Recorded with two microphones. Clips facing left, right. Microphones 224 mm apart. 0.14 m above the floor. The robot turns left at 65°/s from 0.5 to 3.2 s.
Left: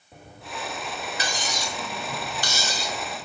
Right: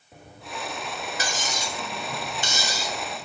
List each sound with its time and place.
1.2 s cutlery clinking: 70° right, 1.1 m; by 3.0 s straight behind, 1.1 m